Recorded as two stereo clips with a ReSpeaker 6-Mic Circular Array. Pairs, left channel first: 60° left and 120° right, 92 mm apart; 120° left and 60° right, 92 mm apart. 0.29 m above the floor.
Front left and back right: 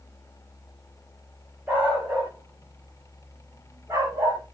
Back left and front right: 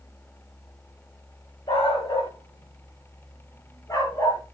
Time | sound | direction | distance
1.7 | a dog barking | 160° left | 7.5 m